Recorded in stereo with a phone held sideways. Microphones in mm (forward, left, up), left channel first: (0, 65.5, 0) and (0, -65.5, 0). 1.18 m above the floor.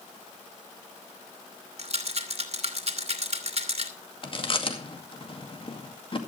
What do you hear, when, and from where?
1.8 s a rattle: 50° right (ahead or behind), 1.9 m
4.2 s chewing: 40° left (ahead or behind), 2 m